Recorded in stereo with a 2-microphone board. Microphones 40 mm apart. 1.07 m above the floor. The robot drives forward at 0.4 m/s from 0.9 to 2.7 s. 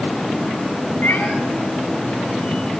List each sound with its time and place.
1.0 s a cat meowing: 65° left (ahead or behind), 4 m